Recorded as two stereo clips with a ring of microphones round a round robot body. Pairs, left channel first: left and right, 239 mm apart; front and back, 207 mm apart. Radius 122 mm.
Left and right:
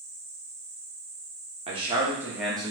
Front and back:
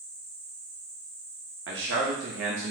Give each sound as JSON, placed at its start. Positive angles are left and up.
{"t": 1.7, "sound": "a man speaking", "azimuth_deg": -155, "distance_m": 1.3}